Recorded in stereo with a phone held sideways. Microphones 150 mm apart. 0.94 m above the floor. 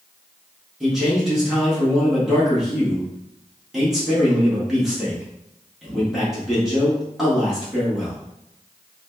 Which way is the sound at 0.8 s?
Centre (ahead or behind).